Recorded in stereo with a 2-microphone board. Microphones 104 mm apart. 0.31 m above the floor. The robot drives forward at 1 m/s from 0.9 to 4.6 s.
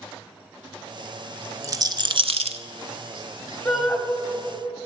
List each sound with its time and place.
1.6 s a rattle: 30° right (ahead or behind), 1.1 m; by 2.6 s 85° right, 0.6 m
3.6 s a shout: 5° left (ahead or behind), 2 m